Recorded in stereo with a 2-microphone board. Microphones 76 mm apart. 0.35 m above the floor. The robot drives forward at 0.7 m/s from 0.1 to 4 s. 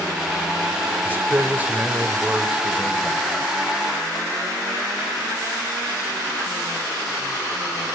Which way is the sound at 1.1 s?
25° right (ahead or behind).